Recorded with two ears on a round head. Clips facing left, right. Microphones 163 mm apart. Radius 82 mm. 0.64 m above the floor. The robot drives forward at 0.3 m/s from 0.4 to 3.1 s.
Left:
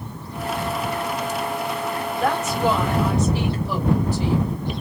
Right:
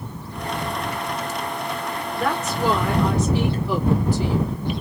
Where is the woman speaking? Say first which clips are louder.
Left 1 dB; 65° right (ahead or behind), 2.5 m.